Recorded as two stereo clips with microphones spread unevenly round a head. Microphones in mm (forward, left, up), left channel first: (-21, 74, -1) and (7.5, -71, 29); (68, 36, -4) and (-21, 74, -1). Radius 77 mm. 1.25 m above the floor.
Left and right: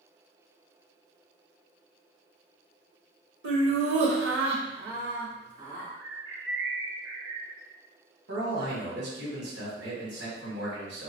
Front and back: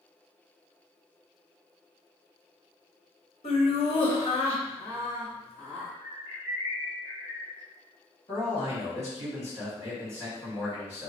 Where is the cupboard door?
No cupboard door in this recording.